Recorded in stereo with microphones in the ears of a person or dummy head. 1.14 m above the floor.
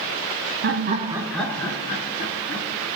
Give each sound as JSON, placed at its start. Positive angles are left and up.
{"t": 0.6, "sound": "laughter", "side_deg": -50, "distance_m": 0.8}